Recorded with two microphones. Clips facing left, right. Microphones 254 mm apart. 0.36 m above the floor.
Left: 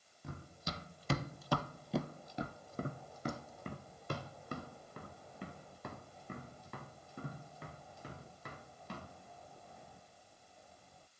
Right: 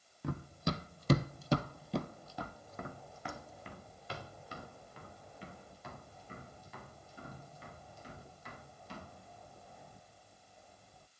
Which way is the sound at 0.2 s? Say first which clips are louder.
Right 9 dB; 70° right (ahead or behind).